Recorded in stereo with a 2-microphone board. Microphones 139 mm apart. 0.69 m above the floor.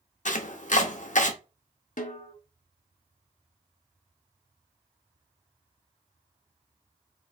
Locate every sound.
0.2 s chopping: 60° left (ahead or behind), 0.7 m
2.0 s a snare drum: 65° left (ahead or behind), 0.8 m